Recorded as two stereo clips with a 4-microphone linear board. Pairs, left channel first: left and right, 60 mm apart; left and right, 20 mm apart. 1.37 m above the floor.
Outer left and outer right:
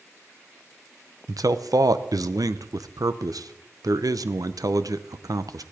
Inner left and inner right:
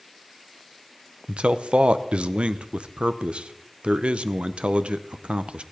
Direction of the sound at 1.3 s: 80° right.